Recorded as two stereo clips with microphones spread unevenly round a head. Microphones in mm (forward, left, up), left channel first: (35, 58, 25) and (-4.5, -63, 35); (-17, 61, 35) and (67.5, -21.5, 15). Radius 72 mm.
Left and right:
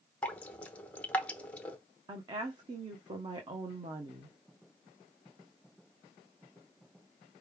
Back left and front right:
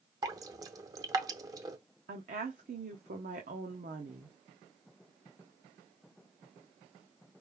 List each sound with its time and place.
0.2 s dripping: 5° right, 0.6 m
2.1 s a woman speaking: 50° right, 1.0 m